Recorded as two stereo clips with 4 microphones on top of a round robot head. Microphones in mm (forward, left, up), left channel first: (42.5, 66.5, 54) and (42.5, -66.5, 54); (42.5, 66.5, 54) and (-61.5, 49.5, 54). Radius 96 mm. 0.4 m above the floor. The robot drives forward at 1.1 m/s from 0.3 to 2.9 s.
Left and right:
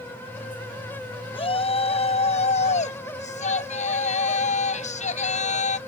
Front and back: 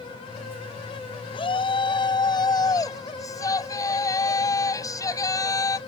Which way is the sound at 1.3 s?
45° left.